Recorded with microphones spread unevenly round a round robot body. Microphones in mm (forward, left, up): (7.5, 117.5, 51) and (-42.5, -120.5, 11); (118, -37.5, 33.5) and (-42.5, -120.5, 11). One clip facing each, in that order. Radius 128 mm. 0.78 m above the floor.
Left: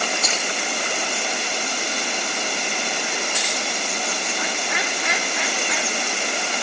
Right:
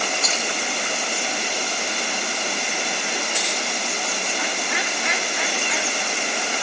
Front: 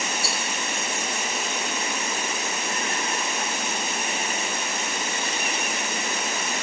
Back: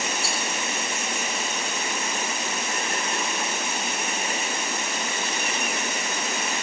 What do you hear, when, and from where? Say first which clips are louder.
0.2 s a rattle: left 1 dB, even; 80° left, 3.5 m